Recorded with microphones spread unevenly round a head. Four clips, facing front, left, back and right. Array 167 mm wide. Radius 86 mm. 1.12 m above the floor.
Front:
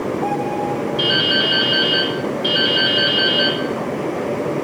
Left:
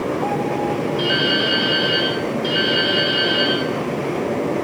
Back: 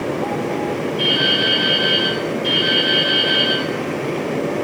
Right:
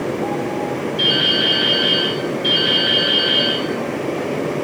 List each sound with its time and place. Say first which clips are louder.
1.0 s dripping: left 1 dB, even; 35° left, 8 m